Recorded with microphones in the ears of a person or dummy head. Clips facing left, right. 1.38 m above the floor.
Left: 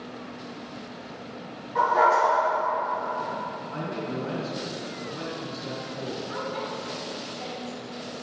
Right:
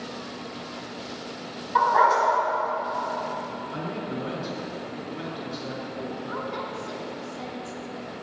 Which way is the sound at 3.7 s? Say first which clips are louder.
Left 1 dB; 45° right (ahead or behind).